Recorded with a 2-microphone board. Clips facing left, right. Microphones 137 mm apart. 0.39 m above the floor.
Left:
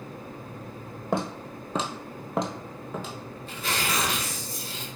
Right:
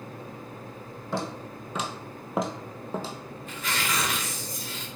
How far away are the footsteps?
About 0.8 m.